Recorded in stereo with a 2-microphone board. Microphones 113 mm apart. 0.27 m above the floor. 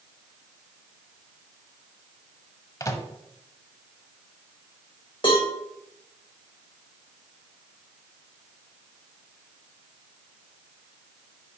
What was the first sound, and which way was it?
A microwave, 30° left (ahead or behind).